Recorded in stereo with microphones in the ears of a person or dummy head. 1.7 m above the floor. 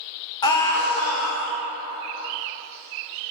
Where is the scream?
15° left (ahead or behind), 0.6 m; by 1.5 s centre (ahead or behind), 1.2 m.